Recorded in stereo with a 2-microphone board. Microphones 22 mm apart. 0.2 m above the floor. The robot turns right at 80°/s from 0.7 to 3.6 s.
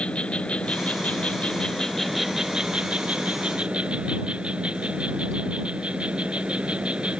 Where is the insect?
65° left; by 7.2 s 65° right.